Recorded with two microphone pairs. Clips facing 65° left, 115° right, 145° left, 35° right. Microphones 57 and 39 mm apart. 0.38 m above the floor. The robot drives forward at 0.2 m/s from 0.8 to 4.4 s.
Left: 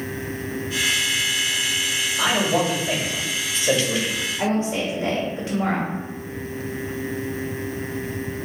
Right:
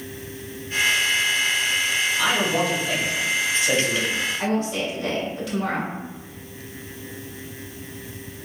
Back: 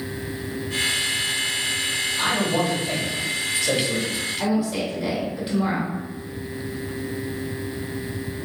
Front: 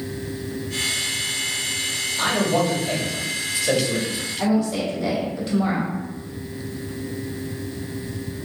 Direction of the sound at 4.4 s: 85° left.